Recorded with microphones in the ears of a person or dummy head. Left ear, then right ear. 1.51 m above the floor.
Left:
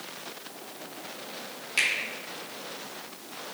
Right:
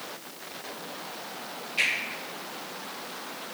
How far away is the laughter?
No laughter in this recording.